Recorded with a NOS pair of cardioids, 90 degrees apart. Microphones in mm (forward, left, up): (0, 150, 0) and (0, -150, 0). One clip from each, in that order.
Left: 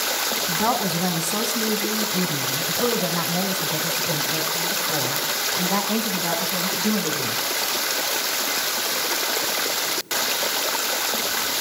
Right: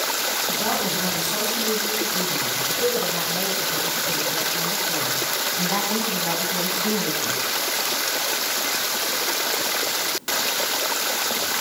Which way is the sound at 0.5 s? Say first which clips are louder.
Left 1 dB; 65° left.